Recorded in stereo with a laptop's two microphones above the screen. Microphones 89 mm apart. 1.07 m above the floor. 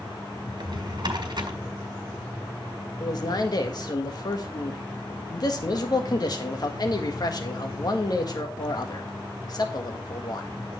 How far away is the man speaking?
About 1.7 m.